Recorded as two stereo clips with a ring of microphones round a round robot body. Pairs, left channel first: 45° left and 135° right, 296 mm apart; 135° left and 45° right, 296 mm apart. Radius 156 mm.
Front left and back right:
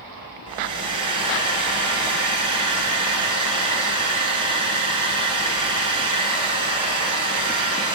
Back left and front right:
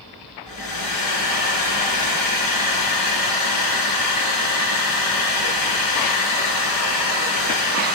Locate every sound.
0.5 s a hair dryer: 150° left, 5 m